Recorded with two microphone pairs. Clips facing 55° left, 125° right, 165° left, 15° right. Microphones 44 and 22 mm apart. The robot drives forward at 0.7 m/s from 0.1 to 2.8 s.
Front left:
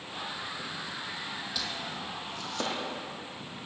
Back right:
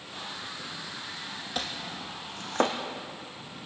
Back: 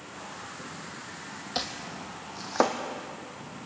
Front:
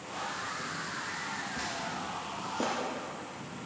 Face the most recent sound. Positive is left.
turn(degrees=-175)